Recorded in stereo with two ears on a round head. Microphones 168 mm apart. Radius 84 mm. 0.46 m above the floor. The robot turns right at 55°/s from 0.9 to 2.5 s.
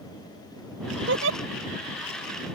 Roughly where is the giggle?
Right.